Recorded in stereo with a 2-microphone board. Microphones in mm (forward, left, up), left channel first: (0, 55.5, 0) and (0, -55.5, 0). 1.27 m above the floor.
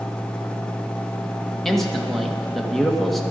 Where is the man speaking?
5° left (ahead or behind), 1.6 m.